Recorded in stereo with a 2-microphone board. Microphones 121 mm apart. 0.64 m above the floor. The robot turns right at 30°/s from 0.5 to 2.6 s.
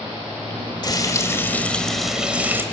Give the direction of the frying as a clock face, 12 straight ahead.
7 o'clock.